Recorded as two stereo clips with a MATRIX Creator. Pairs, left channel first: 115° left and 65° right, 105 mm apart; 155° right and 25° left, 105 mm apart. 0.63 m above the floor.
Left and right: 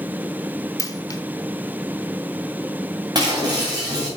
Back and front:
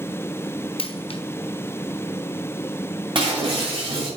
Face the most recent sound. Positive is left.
turn(degrees=-15)